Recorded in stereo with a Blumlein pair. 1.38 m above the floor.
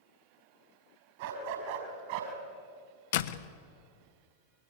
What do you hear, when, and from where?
1.2 s a dog barking: 55° right, 5.5 m; by 2.3 s 50° right, 4.5 m
3.1 s a door slam: 55° left, 1.1 m